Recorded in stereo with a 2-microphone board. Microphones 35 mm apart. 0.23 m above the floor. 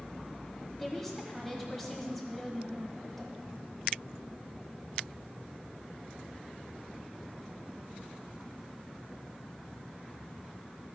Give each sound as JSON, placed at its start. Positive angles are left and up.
{"t": 0.8, "sound": "a woman speaking", "side_deg": 5, "distance_m": 1.1}